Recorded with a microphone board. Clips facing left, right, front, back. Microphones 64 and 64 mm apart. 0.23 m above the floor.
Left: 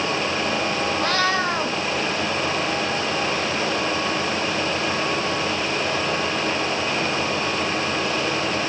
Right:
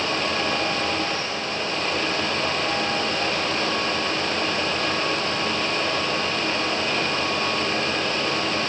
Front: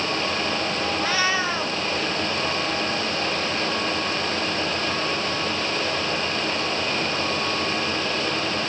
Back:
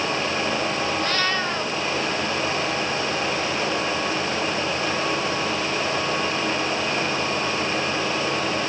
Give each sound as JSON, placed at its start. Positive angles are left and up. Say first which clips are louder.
{"t": 1.0, "sound": "a cat meowing", "louder": "left 6 dB, front 1 dB", "azimuth_deg": 80}